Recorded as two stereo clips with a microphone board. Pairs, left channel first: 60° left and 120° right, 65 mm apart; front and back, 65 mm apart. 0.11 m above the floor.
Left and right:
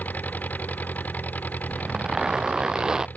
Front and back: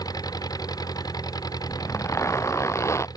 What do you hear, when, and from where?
0.0 s an engine running: 5° right
1.7 s a zipper: 40° right